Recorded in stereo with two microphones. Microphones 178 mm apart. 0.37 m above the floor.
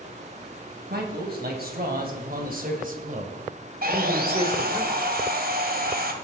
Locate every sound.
0.9 s a man speaking: 60° right (ahead or behind), 3 m; by 4.8 s 25° right (ahead or behind), 1.5 m
3.8 s sawing: 55° right (ahead or behind), 1.5 m